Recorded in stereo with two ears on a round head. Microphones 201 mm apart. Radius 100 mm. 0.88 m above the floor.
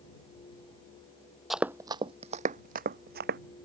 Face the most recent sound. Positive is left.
turn(degrees=-50)  # may be behind; listen again after turning